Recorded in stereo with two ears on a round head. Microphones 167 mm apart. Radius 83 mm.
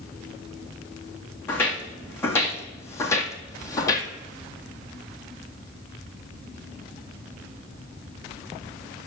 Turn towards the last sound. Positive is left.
turn(degrees=20)  # may be behind; listen again after turning